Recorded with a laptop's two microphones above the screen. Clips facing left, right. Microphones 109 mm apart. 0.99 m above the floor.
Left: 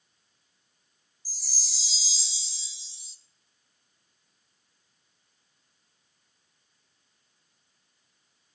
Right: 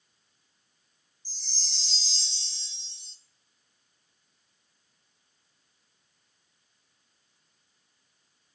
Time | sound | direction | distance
1.2 | a chime | 5° left (ahead or behind) | 0.9 m